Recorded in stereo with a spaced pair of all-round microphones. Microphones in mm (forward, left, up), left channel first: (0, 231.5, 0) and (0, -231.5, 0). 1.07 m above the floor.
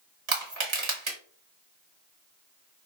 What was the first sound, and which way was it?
Crushing, 80° right.